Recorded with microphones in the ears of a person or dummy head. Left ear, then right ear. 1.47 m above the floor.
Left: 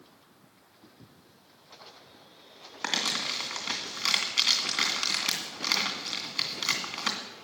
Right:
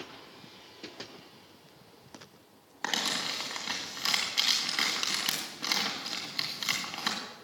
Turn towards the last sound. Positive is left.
turn(degrees=10)  # may be behind; listen again after turning